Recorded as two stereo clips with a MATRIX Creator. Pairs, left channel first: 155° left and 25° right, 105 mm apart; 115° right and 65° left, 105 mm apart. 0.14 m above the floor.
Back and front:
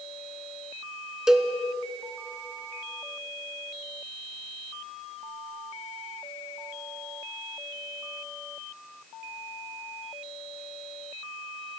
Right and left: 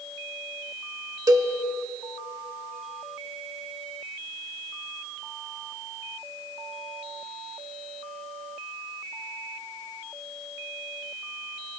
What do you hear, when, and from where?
1.3 s a cowbell: 55° left, 0.6 m